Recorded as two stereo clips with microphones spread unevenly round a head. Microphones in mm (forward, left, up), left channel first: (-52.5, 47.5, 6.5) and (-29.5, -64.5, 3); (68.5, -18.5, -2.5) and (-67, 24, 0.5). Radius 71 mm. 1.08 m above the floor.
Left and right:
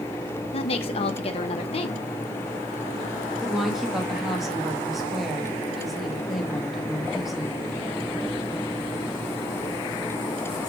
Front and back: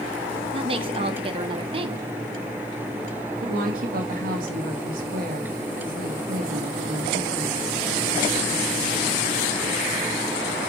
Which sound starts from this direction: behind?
A woman speaking, at 3.4 s.